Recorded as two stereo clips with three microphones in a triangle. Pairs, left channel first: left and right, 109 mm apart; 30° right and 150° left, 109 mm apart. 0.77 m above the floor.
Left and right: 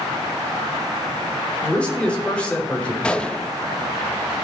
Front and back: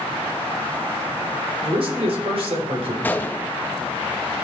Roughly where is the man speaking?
Behind.